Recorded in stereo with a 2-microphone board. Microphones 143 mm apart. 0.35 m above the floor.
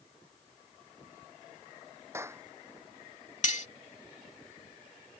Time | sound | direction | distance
2.1 | a clap | 20° right (ahead or behind) | ?
3.4 | cutlery clinking | 55° left (ahead or behind) | ?